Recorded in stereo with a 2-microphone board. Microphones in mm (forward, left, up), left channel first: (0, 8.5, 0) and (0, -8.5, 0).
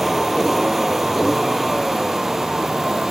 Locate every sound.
0.0 s a vehicle: 10° right (ahead or behind)